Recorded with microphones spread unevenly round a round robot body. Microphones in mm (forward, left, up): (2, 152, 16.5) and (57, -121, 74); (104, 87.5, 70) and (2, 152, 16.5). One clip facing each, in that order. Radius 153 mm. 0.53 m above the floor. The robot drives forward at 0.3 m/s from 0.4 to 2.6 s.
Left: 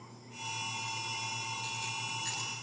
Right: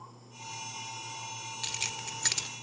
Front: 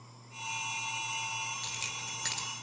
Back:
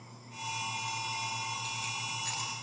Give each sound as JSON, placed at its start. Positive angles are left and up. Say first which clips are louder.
{"t": 1.6, "sound": "keys jangling", "louder": "even, back 4 dB", "azimuth_deg": -70, "distance_m": 1.3}